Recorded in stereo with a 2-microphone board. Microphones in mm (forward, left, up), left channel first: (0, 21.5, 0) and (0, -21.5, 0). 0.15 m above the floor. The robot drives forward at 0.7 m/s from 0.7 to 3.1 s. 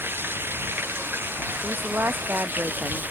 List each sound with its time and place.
0.0 s running water: 55° right (ahead or behind); by 3.1 s 45° right (ahead or behind)
1.6 s a woman speaking: 55° right (ahead or behind)